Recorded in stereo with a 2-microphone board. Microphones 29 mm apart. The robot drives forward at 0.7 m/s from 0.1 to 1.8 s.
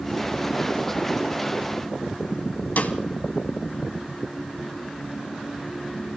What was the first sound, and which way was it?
A snare drum, 65° left (ahead or behind).